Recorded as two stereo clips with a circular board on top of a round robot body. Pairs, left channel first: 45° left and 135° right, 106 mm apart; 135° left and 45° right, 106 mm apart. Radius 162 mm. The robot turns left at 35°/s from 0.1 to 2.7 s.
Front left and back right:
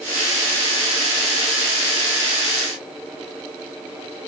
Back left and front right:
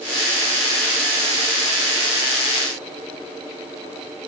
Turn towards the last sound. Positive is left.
No sound to turn to.